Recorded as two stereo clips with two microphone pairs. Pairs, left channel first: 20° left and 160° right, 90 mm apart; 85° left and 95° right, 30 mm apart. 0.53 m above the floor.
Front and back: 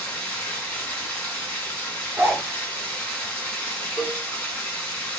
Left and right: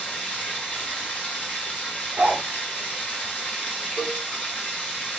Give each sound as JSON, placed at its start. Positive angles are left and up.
{"t": 0.0, "sound": "running water", "azimuth_deg": 100, "distance_m": 2.0}
{"t": 2.2, "sound": "a zipper", "azimuth_deg": -95, "distance_m": 0.6}
{"t": 4.0, "sound": "a cowbell", "azimuth_deg": 100, "distance_m": 1.6}